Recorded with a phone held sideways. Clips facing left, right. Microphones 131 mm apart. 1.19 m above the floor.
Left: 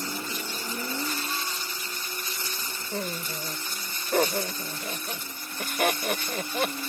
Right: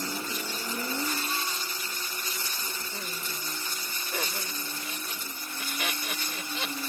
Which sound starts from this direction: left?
Laughter, at 2.9 s.